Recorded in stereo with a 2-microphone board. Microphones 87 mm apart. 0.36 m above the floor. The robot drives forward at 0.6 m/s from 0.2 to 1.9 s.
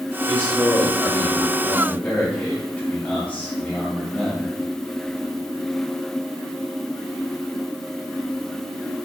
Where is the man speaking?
25° left (ahead or behind), 1.4 m; by 4.5 s 20° left (ahead or behind), 1.9 m.